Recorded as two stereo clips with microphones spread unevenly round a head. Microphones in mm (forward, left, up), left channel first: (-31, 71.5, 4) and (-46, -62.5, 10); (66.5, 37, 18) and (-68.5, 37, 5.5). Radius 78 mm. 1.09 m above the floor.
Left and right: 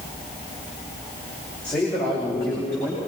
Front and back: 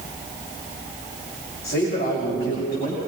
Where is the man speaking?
5° left, 5 m.